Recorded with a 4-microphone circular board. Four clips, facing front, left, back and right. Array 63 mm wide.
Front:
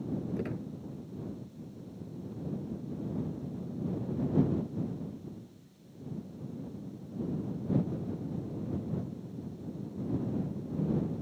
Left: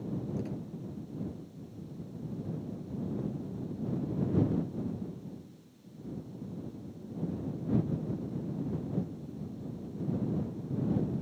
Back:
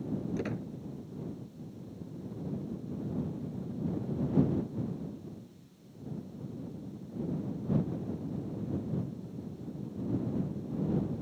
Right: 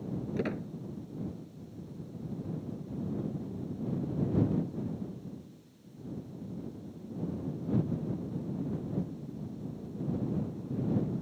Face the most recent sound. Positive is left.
turn(degrees=-105)